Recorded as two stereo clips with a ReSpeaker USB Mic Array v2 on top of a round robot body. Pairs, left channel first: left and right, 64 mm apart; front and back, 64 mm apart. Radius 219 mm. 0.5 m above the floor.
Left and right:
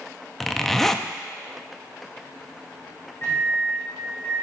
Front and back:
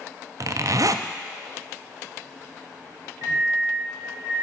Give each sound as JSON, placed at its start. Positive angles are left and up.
{"t": 0.4, "sound": "a zipper", "azimuth_deg": 175, "distance_m": 0.6}
{"t": 3.2, "sound": "a microwave", "azimuth_deg": 145, "distance_m": 2.5}